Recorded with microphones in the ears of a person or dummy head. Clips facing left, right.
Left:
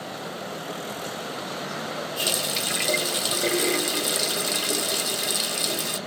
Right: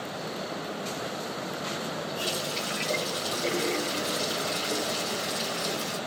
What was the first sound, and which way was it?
A running tap, 60° left (ahead or behind).